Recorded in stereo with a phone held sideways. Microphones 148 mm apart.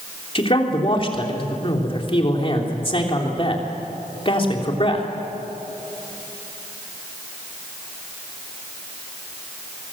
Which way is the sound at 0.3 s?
40° left (ahead or behind).